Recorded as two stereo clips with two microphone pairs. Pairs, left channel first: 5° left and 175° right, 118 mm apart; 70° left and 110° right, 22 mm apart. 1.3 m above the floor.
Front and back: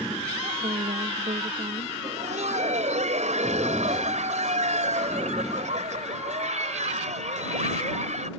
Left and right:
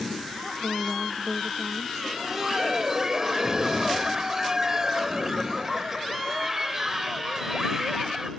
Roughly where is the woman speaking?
Behind.